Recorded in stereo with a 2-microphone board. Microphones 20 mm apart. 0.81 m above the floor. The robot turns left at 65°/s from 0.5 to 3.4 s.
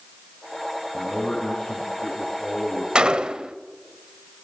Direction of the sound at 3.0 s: 55° right (ahead or behind).